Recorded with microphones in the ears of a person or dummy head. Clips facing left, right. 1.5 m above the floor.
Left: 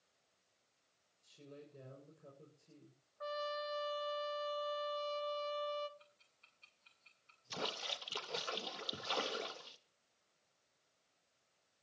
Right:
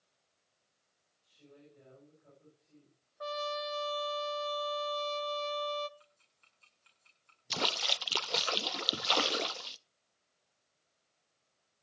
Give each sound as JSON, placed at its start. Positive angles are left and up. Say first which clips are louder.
{"t": 1.2, "sound": "a woman speaking", "louder": "left 3 dB", "side_deg": 60, "distance_m": 6.5}
{"t": 3.2, "sound": "a trumpet", "louder": "right 4 dB", "side_deg": -45, "distance_m": 0.9}
{"t": 6.0, "sound": "ticking", "louder": "even", "side_deg": -45, "distance_m": 5.5}
{"t": 7.5, "sound": "a splash", "louder": "right 6 dB", "side_deg": -75, "distance_m": 0.6}